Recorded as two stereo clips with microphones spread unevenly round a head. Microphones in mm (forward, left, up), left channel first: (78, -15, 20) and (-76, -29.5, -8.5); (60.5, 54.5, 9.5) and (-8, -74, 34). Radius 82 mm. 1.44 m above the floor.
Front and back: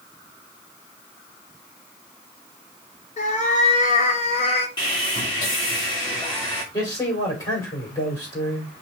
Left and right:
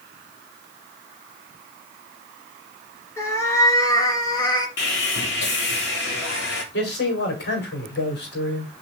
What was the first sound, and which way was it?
A cat meowing, 15° right.